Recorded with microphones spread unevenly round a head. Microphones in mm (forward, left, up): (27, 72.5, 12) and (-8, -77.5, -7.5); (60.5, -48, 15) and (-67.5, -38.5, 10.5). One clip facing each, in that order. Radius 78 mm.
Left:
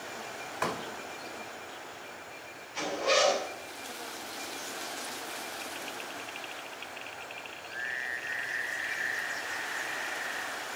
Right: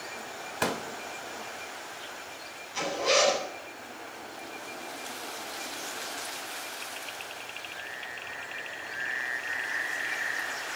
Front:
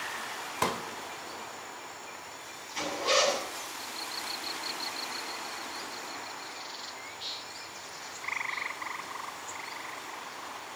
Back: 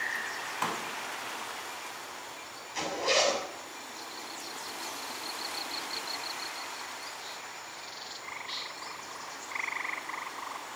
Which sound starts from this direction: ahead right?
A pop, at 0.6 s.